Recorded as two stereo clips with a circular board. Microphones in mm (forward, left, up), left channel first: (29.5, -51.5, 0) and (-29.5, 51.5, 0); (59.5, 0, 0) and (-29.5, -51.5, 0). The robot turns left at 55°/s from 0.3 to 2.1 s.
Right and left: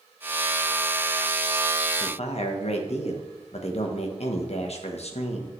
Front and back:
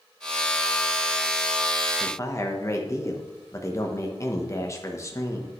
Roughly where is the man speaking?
Ahead right.